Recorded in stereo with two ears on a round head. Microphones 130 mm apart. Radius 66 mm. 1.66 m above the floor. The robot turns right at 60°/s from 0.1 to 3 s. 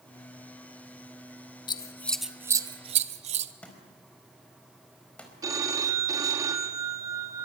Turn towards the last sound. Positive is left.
turn(degrees=-25)  # may be behind; listen again after turning